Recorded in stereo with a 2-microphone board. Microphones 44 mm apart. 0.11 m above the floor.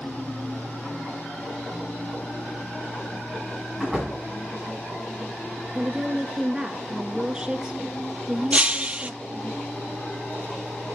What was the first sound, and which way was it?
A door slam, centre (ahead or behind).